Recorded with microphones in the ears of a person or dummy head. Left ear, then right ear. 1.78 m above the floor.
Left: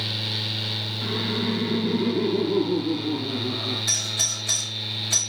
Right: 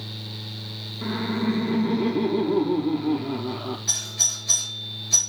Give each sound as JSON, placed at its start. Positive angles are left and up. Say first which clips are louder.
{"t": 1.0, "sound": "laughter", "louder": "right 2 dB", "side_deg": -15, "distance_m": 0.5}
{"t": 3.9, "sound": "a doorbell", "louder": "right 2 dB", "side_deg": 35, "distance_m": 5.0}